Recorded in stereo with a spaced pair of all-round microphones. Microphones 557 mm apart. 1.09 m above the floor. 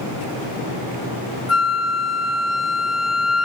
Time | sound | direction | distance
1.5 | a flute | 65° left (ahead or behind) | 1.1 m